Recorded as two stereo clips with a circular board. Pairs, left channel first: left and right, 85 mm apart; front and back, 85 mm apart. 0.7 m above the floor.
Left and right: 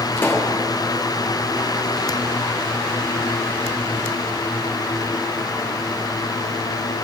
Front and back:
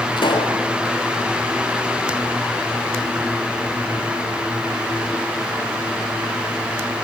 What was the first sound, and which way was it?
A pop, 25° left.